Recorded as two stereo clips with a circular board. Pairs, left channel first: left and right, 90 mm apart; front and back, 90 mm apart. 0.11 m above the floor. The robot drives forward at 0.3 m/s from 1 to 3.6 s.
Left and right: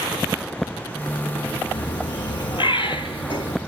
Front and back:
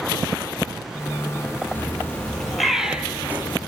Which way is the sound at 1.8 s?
65° left.